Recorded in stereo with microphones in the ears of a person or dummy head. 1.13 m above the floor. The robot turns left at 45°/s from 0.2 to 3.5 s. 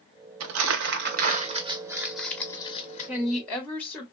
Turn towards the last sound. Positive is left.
turn(degrees=5)  # may be behind; listen again after turning